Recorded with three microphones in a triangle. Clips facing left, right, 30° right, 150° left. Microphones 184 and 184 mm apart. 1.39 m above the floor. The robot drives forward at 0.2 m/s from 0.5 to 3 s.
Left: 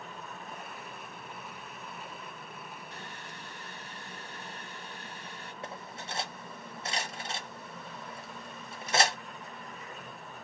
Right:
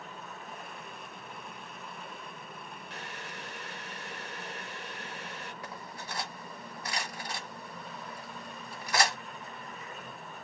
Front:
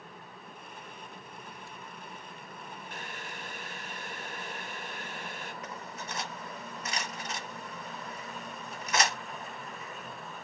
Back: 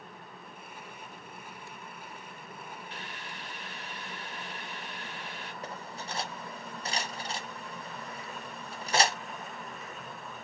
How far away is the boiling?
About 0.8 m.